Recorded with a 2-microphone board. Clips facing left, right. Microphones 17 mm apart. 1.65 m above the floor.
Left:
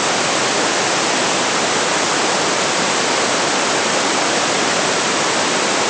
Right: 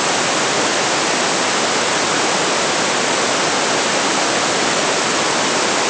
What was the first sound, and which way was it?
Only background noise.